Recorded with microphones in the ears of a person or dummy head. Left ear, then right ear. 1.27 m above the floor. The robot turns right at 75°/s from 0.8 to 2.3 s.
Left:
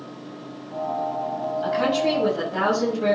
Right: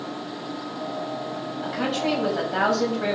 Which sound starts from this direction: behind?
A woman speaking, at 1.6 s.